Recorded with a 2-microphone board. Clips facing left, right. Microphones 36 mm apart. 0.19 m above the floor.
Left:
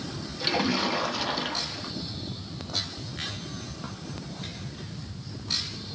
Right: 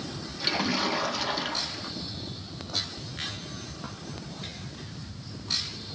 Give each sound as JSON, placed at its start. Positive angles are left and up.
{"t": 0.4, "sound": "a splash", "side_deg": 5, "distance_m": 0.7}